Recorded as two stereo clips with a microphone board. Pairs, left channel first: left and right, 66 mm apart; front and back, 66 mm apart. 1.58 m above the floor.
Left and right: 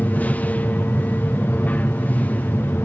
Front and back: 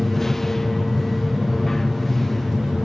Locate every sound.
0.0 s an aircraft: 80° left